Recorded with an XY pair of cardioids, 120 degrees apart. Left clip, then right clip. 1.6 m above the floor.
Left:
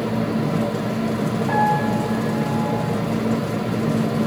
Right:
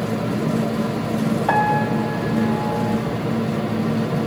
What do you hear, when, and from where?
1.5 s a piano: 60° right, 6.5 m